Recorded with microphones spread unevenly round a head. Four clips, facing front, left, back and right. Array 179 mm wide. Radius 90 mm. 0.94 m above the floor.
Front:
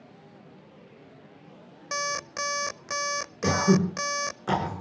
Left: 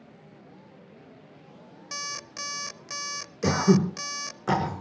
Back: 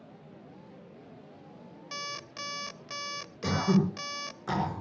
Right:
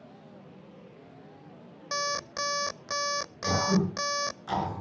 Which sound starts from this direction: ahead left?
Throat clearing, at 3.4 s.